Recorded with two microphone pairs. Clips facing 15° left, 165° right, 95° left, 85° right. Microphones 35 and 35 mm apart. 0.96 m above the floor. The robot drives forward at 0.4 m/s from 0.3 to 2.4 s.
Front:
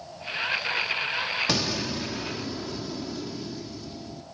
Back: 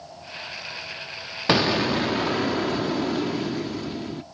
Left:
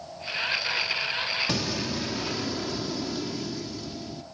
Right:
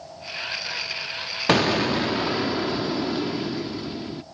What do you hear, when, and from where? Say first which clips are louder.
1.5 s an explosion: back 7 dB, right 9 dB; 115° right, 0.7 m; by 4.2 s 135° right, 0.9 m